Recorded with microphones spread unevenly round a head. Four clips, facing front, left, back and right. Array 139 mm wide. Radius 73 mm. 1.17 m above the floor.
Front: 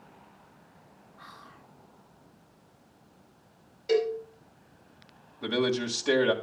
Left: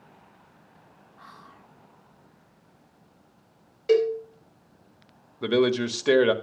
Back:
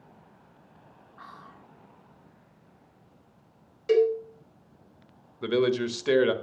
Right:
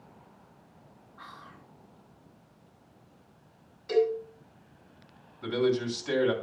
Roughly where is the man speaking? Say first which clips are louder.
Left 5 dB, back 3 dB; left.